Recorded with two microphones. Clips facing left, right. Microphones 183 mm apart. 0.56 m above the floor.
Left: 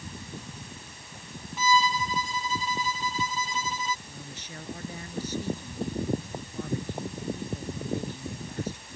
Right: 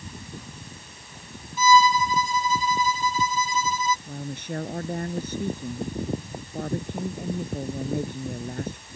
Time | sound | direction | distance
1.6 | a violin | 75° left (ahead or behind) | ?
4.1 | a woman speaking | 55° right (ahead or behind) | ?